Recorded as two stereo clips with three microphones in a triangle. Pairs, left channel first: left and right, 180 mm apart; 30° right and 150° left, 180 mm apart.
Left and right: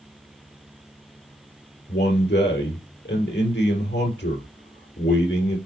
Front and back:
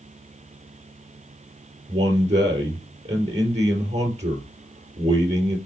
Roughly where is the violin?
No violin in this recording.